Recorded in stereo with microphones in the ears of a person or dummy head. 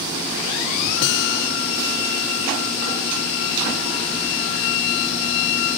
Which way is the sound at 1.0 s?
75° left (ahead or behind).